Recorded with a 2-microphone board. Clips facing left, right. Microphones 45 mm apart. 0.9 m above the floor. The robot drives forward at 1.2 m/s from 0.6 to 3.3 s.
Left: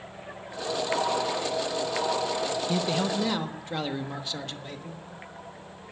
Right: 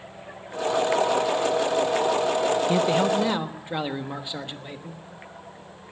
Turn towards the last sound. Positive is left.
turn(degrees=-15)  # may be behind; listen again after turning